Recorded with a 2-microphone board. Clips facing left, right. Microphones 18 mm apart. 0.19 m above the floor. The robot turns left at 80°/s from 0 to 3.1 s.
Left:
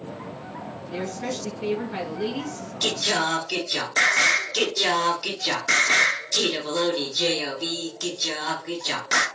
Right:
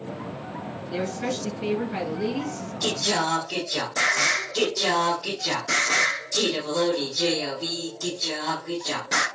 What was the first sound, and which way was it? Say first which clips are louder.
A woman speaking: right 2 dB; 110° right.